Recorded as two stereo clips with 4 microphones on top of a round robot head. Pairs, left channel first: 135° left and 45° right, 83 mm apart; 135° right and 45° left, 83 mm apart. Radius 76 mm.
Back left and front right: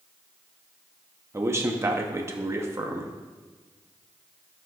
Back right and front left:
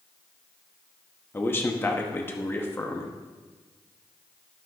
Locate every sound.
1.3 s a man speaking: 85° right, 0.9 m